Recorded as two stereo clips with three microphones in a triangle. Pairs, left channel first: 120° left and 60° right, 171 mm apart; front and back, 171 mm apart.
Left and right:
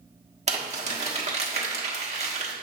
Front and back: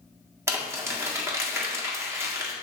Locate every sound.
0.5 s crumpling: 110° right, 1.4 m